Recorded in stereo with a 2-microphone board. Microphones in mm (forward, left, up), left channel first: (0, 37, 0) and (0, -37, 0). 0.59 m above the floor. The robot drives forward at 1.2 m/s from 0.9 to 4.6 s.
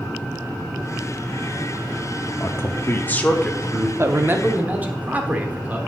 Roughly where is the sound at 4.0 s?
Right.